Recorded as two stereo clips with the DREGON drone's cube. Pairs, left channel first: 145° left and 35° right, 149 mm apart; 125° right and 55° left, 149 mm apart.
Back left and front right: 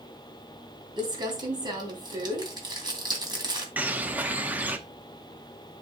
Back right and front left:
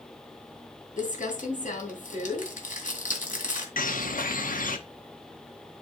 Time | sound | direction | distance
1.0 | crumpling | 95° right | 2 m
3.8 | a bird | 115° right | 0.9 m